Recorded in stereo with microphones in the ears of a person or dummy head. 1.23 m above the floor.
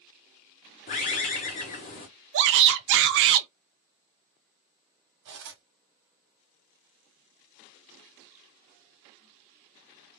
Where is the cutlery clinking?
65° right (ahead or behind), 1.3 m.